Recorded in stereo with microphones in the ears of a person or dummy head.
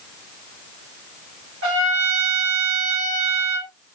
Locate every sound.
1.6 s a trumpet: 65° right (ahead or behind), 1.3 m